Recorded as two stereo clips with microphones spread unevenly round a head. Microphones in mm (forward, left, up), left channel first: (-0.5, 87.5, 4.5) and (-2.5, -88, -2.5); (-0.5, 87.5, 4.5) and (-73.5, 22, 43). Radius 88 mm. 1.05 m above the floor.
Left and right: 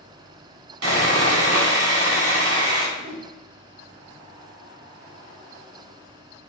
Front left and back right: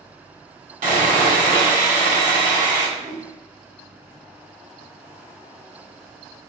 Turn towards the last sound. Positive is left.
turn(degrees=-100)